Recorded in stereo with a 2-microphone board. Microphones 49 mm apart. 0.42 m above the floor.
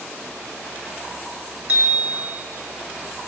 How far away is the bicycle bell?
About 4.5 m.